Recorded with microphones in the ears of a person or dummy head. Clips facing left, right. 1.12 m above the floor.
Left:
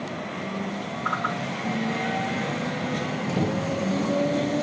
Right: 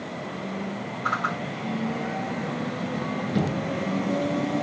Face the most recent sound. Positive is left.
turn(degrees=-55)  # may be behind; listen again after turning